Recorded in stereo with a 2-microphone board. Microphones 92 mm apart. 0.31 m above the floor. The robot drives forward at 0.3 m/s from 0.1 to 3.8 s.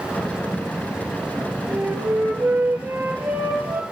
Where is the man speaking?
I don't hear a man speaking.